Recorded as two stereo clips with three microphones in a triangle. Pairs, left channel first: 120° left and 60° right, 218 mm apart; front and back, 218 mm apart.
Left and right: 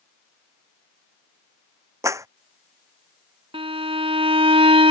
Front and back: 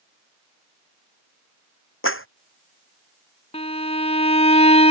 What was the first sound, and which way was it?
A clap, 15° left.